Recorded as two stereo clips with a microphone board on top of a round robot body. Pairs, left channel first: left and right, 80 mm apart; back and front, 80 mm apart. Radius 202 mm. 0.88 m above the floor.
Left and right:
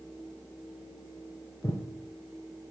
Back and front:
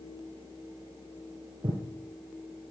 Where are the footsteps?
35° left, 1.4 m.